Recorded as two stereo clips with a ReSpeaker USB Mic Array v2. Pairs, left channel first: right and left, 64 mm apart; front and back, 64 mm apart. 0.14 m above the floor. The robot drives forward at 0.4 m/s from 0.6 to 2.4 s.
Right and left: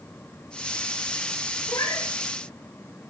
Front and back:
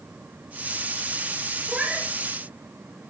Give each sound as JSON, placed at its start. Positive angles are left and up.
{"t": 1.7, "sound": "a cat meowing", "azimuth_deg": -110, "distance_m": 6.0}